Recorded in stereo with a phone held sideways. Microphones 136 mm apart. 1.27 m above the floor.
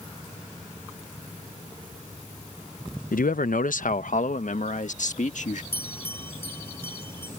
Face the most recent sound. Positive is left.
turn(degrees=15)  # may be behind; listen again after turning